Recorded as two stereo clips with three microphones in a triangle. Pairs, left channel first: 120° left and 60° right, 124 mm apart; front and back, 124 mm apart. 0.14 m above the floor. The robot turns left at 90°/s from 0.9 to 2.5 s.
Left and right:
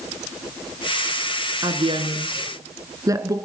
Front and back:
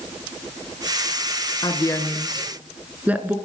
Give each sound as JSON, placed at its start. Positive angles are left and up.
{"t": 1.6, "sound": "a woman speaking", "azimuth_deg": -30, "distance_m": 1.6}